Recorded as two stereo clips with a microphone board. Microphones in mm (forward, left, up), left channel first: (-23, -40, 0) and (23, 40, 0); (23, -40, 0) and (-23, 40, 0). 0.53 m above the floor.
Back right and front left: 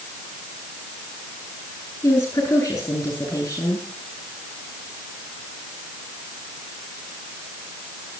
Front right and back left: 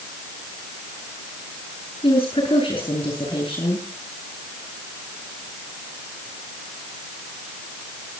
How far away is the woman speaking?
About 9.5 m.